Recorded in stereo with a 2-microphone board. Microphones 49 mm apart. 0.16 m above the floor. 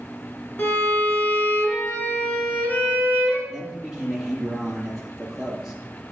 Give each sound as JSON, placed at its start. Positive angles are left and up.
{"t": 0.6, "sound": "a violin", "side_deg": 25, "distance_m": 2.0}
{"t": 3.5, "sound": "a man speaking", "side_deg": -10, "distance_m": 3.0}